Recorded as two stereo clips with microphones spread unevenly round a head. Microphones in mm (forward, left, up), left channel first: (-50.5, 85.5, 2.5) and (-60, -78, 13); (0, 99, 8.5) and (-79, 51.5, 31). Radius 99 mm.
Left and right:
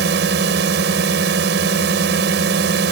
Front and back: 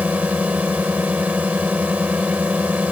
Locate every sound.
0.0 s a drone: 65° right